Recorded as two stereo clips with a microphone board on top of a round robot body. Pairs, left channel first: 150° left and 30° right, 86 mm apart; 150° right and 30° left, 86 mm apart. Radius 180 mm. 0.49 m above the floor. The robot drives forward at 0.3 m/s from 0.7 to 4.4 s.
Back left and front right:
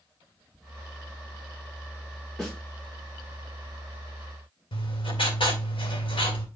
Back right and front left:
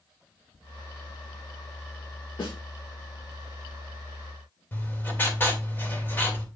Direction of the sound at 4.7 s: 145° left.